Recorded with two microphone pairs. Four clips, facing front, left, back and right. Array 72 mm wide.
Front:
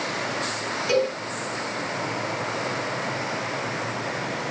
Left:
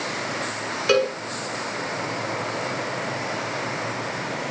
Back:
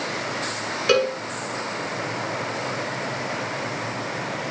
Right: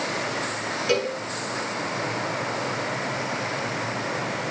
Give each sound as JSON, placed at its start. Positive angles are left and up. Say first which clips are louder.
{"t": 0.9, "sound": "a cowbell", "louder": "left 5 dB, back 3 dB", "azimuth_deg": 145, "distance_m": 4.5}